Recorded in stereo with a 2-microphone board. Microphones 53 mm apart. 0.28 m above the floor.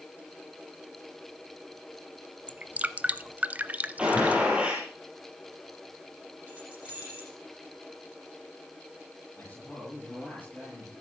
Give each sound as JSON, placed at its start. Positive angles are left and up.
{"t": 2.5, "sound": "dripping", "side_deg": -30, "distance_m": 0.6}
{"t": 4.0, "sound": "a gunshot", "side_deg": -20, "distance_m": 4.5}
{"t": 6.5, "sound": "keys jangling", "side_deg": -25, "distance_m": 8.5}
{"t": 9.4, "sound": "a man speaking", "side_deg": 20, "distance_m": 7.5}